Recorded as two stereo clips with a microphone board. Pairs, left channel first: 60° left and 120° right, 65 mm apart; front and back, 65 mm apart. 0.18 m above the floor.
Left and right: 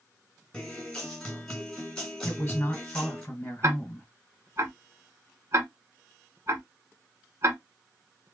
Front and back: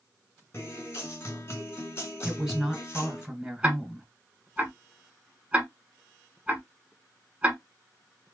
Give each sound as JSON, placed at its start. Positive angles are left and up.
{"t": 0.5, "sound": "a guitar", "azimuth_deg": -20, "distance_m": 1.9}
{"t": 2.2, "sound": "a woman speaking", "azimuth_deg": 105, "distance_m": 1.6}
{"t": 3.6, "sound": "ticking", "azimuth_deg": -115, "distance_m": 1.0}